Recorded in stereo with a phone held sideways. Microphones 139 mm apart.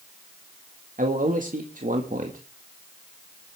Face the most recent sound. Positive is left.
turn(degrees=-70)  # may be behind; listen again after turning